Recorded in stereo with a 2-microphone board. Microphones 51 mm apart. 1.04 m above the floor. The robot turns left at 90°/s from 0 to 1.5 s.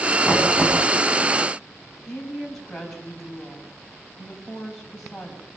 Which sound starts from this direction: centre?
A woman speaking, at 2.1 s.